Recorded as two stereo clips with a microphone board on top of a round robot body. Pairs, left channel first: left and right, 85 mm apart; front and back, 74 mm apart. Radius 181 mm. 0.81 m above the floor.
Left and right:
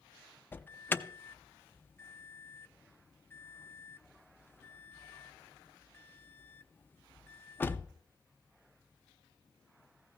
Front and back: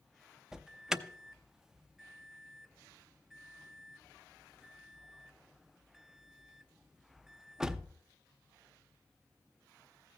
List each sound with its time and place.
0.5 s an alarm: 110° left, 0.8 m